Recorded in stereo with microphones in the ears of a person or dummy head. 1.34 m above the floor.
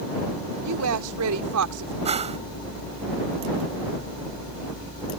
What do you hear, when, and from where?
0.6 s a woman speaking: 70° right (ahead or behind)
2.0 s a whoosh: 25° right (ahead or behind)